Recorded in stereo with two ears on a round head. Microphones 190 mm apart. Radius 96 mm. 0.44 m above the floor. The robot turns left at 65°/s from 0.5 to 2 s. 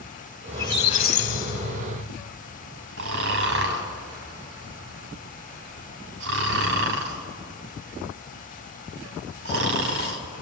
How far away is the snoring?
About 3.5 m.